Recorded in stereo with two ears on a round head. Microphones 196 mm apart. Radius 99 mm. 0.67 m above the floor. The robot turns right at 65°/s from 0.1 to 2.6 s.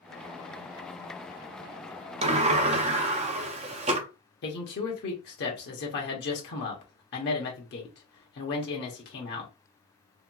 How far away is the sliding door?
About 0.5 m.